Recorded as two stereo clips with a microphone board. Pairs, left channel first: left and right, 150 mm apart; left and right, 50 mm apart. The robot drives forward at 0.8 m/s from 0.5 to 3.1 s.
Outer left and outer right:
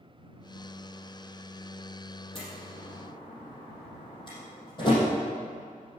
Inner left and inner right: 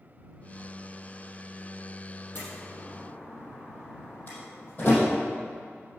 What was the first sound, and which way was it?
A door slam, 40° left (ahead or behind).